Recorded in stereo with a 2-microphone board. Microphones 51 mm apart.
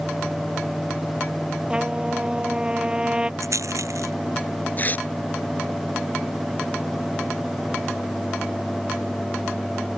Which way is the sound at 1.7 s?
20° right (ahead or behind).